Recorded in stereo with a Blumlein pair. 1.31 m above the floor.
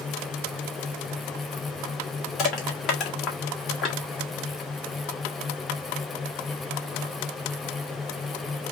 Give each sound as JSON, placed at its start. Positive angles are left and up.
{"t": 0.0, "sound": "a fan", "azimuth_deg": 10, "distance_m": 0.9}
{"t": 2.4, "sound": "crushing", "azimuth_deg": 30, "distance_m": 1.8}